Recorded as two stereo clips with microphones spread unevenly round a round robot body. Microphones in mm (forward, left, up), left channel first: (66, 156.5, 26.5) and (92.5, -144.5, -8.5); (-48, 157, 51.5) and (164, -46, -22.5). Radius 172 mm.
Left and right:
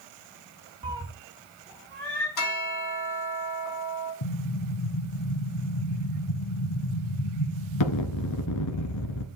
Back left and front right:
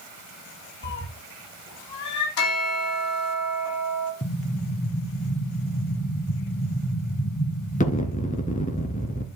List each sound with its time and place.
0.8 s a cat meowing: 160° right, 1.2 m; by 2.3 s 175° right, 3 m
2.4 s a bell: 130° left, 3.5 m
4.2 s an explosion: 70° left, 1.3 m